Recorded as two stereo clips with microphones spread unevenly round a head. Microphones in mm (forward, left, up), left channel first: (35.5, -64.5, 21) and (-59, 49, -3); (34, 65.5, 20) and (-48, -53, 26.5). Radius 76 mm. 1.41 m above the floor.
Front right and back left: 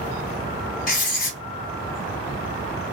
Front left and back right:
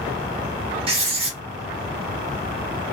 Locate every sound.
0.9 s writing: 70° right, 0.9 m